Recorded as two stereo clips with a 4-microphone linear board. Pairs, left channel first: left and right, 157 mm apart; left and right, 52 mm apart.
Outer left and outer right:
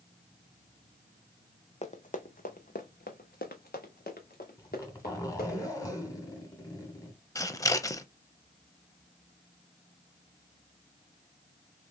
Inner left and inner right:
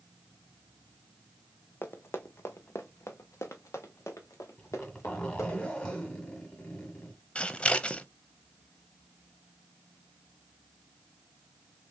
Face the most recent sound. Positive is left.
turn(degrees=20)  # may be behind; listen again after turning